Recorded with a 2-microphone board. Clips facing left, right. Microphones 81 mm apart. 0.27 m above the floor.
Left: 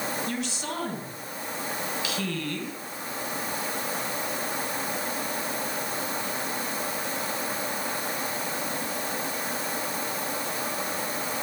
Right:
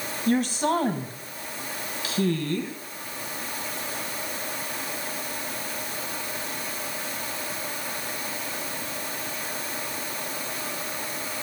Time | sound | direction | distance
0.3 | a woman speaking | 50° right (ahead or behind) | 2 m